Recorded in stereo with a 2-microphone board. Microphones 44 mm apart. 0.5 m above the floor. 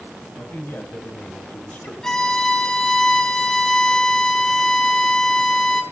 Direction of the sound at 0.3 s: 60° left (ahead or behind).